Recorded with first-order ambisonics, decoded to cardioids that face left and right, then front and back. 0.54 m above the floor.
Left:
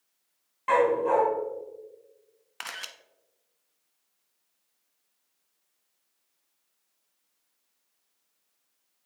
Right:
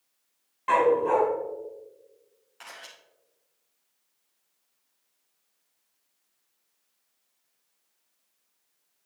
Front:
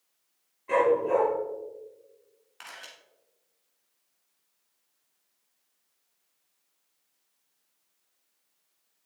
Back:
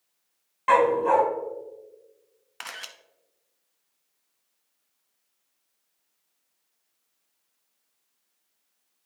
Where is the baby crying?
I don't hear a baby crying.